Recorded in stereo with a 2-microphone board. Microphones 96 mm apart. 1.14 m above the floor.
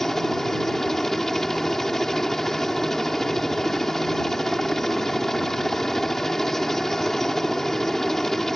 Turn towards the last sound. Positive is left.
turn(degrees=5)  # may be behind; listen again after turning